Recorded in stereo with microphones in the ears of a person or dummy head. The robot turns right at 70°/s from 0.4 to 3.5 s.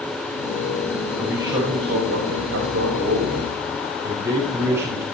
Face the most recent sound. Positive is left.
turn(degrees=-15)